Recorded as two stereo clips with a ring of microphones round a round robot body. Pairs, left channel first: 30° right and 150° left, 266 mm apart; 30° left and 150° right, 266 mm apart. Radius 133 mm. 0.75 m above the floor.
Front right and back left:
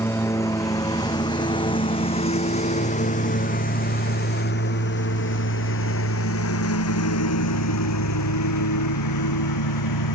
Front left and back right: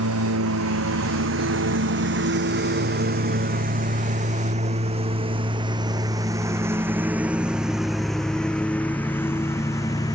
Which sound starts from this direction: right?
A lawn mower, at 0.0 s.